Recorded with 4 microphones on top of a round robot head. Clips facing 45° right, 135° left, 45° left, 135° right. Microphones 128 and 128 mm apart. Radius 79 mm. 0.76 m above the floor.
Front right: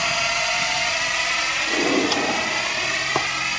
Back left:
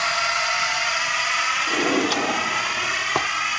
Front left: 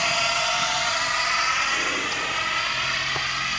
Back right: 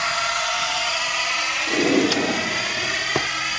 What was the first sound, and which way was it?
A drone, straight ahead.